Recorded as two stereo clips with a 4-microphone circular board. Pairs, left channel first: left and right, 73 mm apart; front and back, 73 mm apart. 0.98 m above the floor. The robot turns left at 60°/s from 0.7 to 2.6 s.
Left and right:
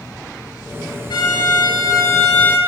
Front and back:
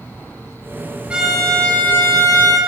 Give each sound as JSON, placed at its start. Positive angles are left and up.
{"t": 1.1, "sound": "a violin", "azimuth_deg": 105, "distance_m": 2.5}